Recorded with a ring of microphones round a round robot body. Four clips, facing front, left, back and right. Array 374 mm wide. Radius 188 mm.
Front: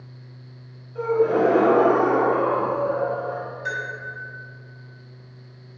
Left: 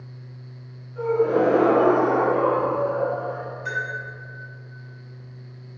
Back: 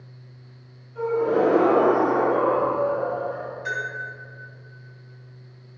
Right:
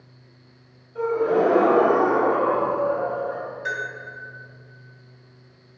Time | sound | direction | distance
0.9 | a gasp | 55° right | 1.6 m
3.6 | a bell | 85° right | 1.2 m